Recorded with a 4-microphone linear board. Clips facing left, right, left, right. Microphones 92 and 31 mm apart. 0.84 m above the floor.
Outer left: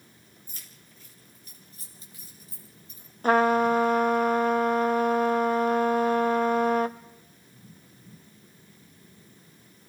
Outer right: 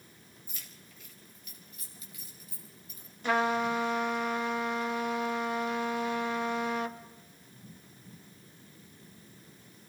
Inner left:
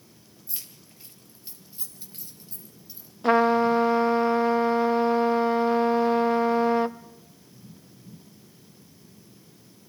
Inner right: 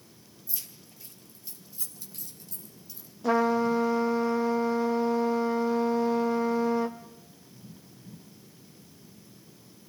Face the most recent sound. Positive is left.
turn(degrees=45)  # may be behind; listen again after turning